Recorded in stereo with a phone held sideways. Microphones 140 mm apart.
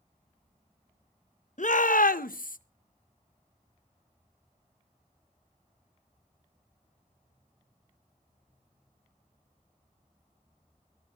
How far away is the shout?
About 1.0 m.